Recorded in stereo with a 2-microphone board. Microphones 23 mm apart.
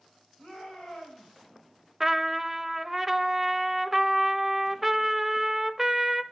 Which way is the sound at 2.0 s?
10° right (ahead or behind).